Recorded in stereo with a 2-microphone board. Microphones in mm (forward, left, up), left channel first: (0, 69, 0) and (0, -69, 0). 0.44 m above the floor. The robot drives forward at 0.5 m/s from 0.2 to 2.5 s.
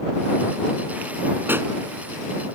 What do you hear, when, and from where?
1.5 s a pop: 15° right (ahead or behind)